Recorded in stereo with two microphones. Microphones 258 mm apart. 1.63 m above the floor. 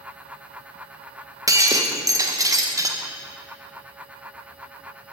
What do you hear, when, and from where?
1.5 s breaking glass: 10° right (ahead or behind), 0.8 m